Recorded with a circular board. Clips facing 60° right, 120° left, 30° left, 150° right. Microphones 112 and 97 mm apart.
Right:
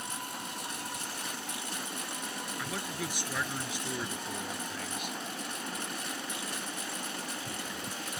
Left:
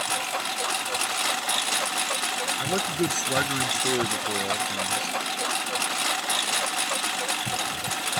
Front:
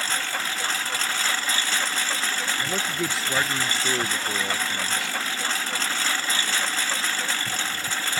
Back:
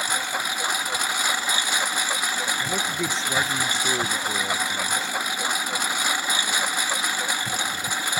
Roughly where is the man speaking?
Behind left.